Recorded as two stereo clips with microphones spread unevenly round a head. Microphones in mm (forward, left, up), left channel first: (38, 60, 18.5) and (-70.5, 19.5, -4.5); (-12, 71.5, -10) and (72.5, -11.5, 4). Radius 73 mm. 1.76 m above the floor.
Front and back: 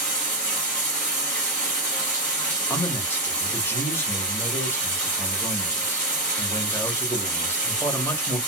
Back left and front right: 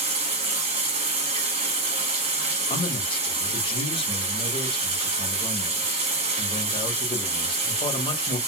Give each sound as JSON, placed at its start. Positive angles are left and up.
{"t": 0.0, "sound": "running water", "azimuth_deg": -50, "distance_m": 1.5}
{"t": 2.7, "sound": "a man speaking", "azimuth_deg": 90, "distance_m": 1.1}